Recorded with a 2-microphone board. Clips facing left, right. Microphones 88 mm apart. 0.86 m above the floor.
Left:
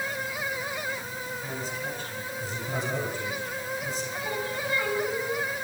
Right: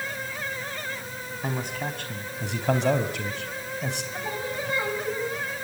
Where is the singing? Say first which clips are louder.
Even; 20° right (ahead or behind), 5.5 m.